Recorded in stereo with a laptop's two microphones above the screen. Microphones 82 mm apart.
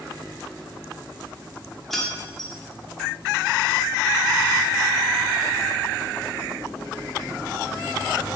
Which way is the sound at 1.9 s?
5° left (ahead or behind).